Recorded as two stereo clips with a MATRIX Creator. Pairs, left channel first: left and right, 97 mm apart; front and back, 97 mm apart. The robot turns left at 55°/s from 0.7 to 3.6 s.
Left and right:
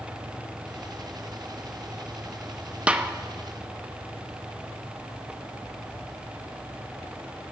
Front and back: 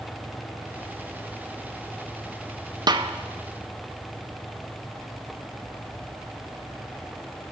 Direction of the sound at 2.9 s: 160° right.